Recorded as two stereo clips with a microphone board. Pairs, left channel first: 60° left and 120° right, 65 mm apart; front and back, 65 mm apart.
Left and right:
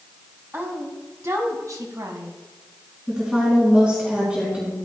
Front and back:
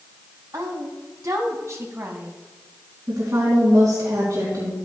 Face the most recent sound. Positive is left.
turn(degrees=165)